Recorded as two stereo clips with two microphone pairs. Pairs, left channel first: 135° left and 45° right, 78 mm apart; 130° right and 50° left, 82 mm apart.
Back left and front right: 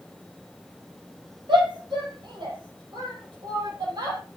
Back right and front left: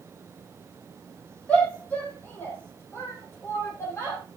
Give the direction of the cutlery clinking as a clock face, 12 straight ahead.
No cutlery clinking in this recording.